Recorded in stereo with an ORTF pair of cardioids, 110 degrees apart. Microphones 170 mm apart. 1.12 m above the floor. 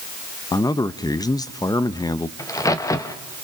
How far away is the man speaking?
About 0.9 m.